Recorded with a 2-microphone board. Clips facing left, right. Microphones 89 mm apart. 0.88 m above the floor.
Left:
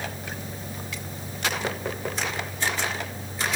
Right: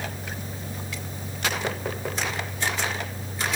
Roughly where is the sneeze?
I don't hear a sneeze.